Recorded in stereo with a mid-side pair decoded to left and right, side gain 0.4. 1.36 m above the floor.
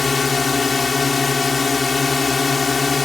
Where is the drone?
35° left.